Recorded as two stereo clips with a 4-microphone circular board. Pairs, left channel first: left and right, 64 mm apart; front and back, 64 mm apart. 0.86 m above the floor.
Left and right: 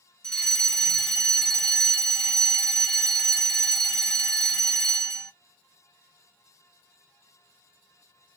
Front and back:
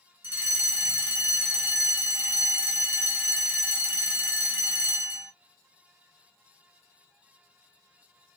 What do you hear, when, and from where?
0.2 s a fire alarm: 150° left, 1.4 m